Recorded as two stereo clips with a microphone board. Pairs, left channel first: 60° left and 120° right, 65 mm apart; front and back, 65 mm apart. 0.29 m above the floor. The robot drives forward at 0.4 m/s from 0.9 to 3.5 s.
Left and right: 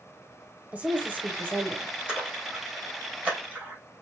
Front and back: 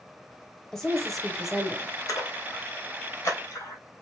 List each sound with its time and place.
0.7 s a woman speaking: 75° right, 1.0 m; by 1.9 s 115° right, 1.1 m
2.1 s a splash: 45° right, 3.5 m; by 3.8 s 50° right, 3 m